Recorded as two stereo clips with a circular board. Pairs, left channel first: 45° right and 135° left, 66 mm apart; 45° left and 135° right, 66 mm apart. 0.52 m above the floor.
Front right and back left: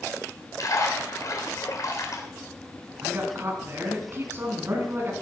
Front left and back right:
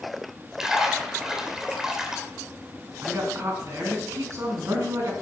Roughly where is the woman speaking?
Behind.